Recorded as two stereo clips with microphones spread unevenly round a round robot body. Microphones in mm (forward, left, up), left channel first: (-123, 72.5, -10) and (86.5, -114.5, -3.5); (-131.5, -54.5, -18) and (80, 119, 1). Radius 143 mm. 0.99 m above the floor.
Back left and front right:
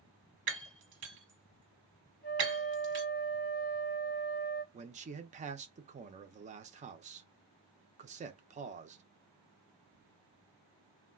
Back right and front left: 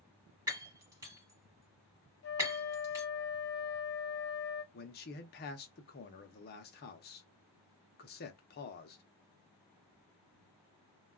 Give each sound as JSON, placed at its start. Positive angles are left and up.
{"t": 0.5, "sound": "breaking glass", "azimuth_deg": -25, "distance_m": 1.0}
{"t": 2.2, "sound": "a flute", "azimuth_deg": -170, "distance_m": 0.5}
{"t": 4.7, "sound": "a man speaking", "azimuth_deg": -100, "distance_m": 0.6}